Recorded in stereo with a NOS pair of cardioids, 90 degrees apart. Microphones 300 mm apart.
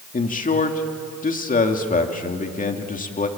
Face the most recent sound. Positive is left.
turn(degrees=30)